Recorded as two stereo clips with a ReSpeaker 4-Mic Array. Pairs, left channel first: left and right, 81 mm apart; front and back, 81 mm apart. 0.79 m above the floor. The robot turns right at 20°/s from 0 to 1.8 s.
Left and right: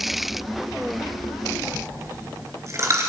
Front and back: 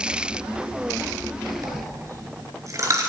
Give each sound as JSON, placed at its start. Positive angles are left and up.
{"t": 1.6, "sound": "a dropped coin", "azimuth_deg": -140, "distance_m": 2.5}